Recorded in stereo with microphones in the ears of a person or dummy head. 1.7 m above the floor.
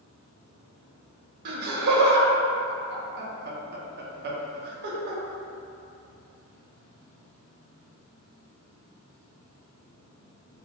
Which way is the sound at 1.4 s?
55° right (ahead or behind).